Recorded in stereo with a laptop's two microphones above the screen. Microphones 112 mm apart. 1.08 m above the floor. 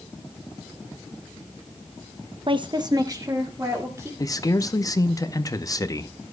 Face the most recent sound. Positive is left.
turn(degrees=30)  # may be behind; listen again after turning